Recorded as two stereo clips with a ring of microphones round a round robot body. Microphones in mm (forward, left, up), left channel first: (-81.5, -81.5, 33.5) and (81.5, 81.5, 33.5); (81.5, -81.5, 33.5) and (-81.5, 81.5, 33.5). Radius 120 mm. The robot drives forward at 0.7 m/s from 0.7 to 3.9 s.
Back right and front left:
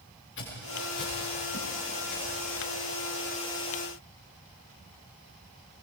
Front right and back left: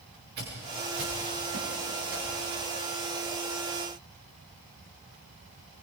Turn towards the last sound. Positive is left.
turn(degrees=170)